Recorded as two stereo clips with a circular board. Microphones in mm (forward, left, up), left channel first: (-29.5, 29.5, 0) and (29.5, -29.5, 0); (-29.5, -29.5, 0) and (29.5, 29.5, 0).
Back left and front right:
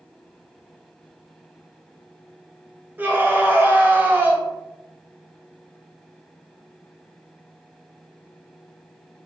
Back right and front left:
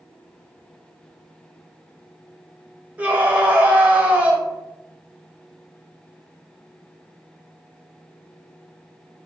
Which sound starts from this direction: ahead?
A scream, at 3.0 s.